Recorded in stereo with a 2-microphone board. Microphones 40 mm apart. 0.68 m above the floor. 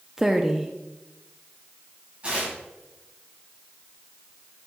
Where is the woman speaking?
10° right (ahead or behind), 0.6 m.